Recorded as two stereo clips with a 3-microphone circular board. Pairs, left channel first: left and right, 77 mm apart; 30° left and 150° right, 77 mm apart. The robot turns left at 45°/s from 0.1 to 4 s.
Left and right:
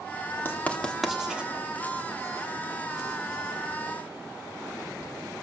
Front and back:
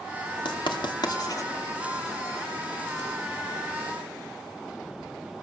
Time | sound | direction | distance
0.5 | writing | 30° left | 2 m